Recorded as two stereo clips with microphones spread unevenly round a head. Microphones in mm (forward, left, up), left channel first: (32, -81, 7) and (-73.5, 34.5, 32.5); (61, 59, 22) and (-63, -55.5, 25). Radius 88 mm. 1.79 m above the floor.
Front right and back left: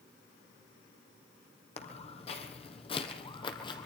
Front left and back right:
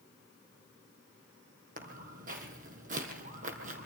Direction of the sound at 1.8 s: 100° right.